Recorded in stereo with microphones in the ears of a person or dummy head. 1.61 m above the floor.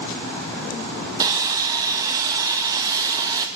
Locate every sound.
1.2 s sawing: 15° right (ahead or behind), 1.3 m